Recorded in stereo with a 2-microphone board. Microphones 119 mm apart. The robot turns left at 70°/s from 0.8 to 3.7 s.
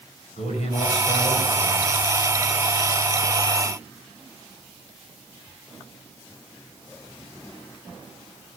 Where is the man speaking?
85° left, 4 m; by 2.0 s 5° left, 4 m.